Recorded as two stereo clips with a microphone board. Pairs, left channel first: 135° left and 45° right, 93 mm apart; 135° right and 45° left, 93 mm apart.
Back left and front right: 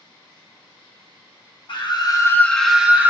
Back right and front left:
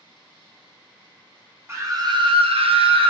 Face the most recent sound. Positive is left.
turn(degrees=25)